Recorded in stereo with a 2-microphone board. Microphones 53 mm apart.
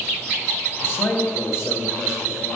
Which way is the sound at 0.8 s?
45° left (ahead or behind).